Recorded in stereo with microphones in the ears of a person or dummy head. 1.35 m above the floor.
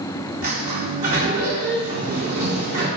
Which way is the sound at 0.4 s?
50° right (ahead or behind).